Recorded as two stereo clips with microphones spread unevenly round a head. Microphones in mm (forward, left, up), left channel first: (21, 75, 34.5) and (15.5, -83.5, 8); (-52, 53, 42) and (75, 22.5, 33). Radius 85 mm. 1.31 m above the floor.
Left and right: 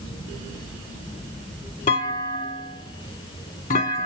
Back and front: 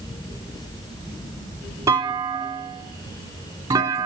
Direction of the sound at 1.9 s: 55° left.